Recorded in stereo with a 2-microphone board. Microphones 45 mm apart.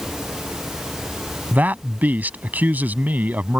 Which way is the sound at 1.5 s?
40° right (ahead or behind).